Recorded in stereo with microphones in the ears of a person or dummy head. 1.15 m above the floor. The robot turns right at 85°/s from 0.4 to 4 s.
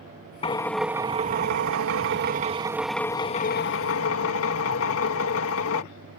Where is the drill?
150° left; by 5.8 s 95° left.